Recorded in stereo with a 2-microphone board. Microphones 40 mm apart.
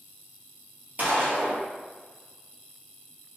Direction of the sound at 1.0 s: 40° right (ahead or behind).